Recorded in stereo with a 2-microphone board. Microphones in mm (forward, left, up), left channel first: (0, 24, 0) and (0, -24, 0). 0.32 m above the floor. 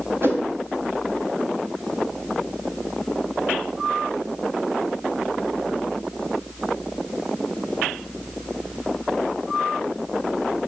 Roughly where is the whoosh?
Right.